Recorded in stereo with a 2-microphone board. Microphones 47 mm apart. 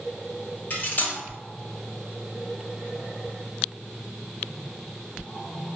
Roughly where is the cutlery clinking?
Left.